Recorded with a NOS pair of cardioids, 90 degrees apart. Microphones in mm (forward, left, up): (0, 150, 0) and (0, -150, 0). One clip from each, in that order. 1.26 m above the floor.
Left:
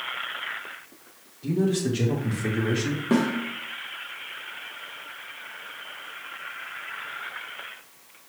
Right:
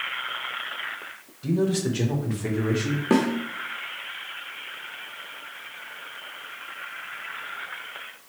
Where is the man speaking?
15° right, 1.4 m; by 3.0 s 15° left, 1.6 m.